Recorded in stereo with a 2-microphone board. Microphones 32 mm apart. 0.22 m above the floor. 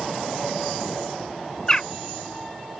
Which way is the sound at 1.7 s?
20° left (ahead or behind).